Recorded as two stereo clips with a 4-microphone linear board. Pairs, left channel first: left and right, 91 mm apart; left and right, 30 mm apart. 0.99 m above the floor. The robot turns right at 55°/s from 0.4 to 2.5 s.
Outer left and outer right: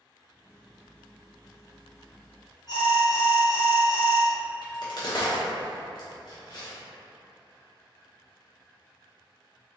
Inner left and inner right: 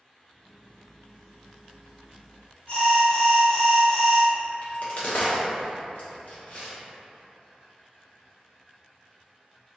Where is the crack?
50° left (ahead or behind), 0.7 m.